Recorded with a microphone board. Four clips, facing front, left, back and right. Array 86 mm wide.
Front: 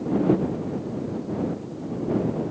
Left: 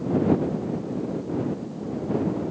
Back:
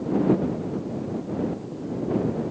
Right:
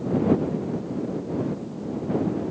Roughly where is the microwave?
I don't hear a microwave.